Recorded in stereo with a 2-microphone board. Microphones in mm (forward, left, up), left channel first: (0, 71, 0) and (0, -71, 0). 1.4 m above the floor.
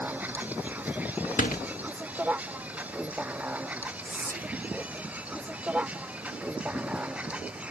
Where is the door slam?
80° left.